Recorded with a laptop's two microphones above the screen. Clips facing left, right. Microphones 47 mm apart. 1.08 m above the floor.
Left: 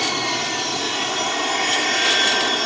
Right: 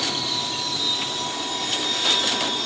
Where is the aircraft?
65° left (ahead or behind).